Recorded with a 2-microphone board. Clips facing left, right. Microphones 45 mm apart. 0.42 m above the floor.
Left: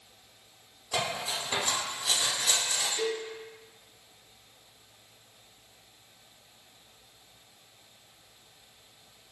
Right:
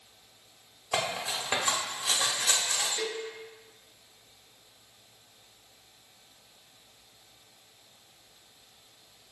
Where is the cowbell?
30° left (ahead or behind), 1.6 m.